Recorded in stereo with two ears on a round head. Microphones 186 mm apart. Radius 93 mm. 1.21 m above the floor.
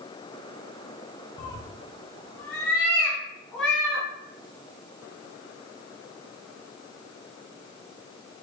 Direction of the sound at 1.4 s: 20° left (ahead or behind).